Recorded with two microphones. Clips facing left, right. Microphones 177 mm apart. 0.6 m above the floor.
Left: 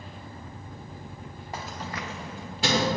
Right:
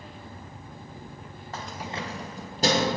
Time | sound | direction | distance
1.5 | keys jangling | 15° left (ahead or behind) | 0.7 m